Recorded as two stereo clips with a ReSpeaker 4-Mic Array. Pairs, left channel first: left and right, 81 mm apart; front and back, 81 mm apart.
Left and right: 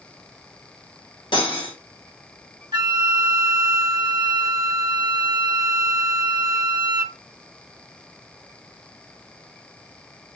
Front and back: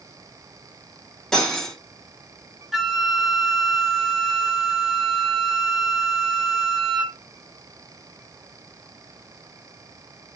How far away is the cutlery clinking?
About 1.2 m.